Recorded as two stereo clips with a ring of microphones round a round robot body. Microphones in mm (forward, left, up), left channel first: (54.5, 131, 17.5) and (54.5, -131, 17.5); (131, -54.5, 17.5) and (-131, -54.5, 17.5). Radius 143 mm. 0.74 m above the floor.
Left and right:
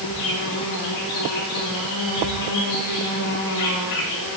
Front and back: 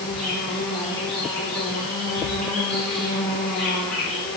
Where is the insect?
85° left, 6 m.